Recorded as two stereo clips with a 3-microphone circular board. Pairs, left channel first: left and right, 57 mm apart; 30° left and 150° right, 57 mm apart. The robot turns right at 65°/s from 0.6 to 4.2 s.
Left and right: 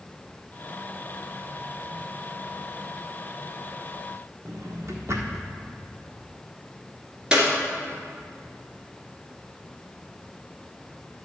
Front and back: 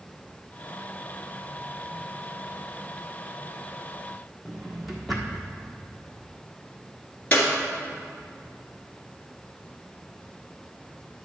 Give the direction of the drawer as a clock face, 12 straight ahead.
2 o'clock.